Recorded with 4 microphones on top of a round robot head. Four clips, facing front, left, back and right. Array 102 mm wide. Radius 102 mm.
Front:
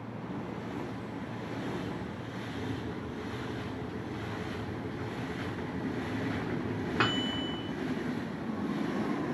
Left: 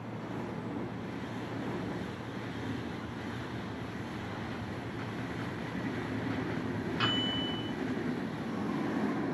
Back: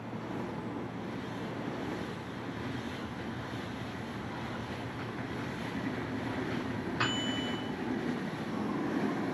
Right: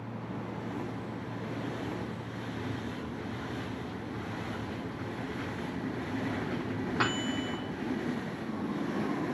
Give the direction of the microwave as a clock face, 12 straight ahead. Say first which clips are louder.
Right 2 dB, front 4 dB; 1 o'clock.